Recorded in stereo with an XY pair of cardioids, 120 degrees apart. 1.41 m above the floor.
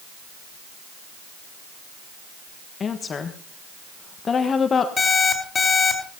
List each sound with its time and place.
2.8 s a woman speaking: 35° left, 1.3 m
5.0 s an alarm clock: 25° left, 4 m